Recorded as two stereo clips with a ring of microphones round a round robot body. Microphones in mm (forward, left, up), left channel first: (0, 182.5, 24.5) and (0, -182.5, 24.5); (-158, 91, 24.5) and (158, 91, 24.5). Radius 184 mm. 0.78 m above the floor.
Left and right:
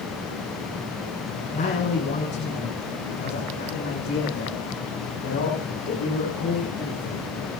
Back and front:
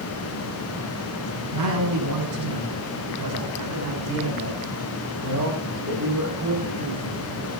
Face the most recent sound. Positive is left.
turn(degrees=45)